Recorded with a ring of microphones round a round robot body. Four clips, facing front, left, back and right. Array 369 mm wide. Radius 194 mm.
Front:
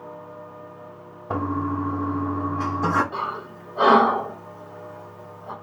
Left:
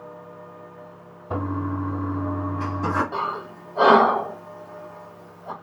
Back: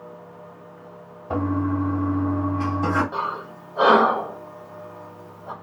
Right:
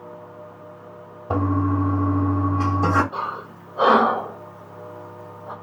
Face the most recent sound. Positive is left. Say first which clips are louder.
# left 1 dB, back 1 dB
turn(degrees=100)